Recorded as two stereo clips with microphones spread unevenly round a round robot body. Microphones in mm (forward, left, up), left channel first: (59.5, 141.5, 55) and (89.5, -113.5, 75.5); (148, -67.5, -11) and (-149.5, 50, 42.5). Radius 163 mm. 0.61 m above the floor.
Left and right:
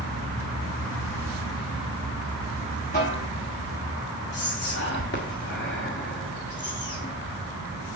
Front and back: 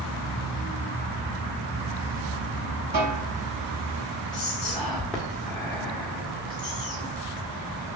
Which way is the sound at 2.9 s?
160° left.